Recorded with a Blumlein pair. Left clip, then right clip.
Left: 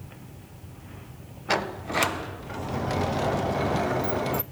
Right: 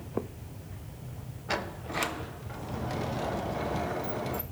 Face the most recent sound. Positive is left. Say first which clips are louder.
# left 7 dB
turn(degrees=70)